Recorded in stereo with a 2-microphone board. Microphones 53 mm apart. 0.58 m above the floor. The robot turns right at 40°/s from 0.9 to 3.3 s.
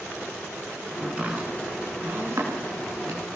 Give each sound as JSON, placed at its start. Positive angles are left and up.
{"t": 1.0, "sound": "chopping", "side_deg": -10, "distance_m": 7.5}